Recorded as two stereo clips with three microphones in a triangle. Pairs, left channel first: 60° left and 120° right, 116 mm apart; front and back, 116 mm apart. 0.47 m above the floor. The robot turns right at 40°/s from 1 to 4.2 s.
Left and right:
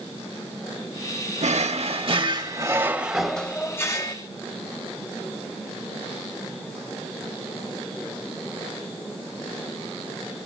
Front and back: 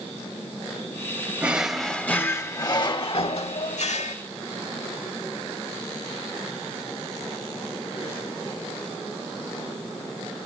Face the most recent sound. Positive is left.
turn(degrees=10)